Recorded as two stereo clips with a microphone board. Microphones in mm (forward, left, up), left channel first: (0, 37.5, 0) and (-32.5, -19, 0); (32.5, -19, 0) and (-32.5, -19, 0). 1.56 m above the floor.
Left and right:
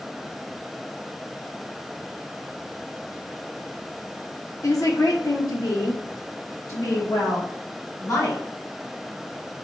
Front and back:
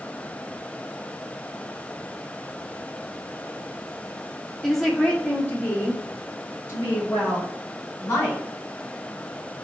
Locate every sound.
4.6 s a woman speaking: 90° left, 0.9 m; by 8.4 s 40° left, 3 m